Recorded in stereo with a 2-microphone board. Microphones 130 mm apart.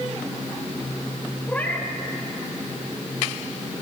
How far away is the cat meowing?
About 1.8 m.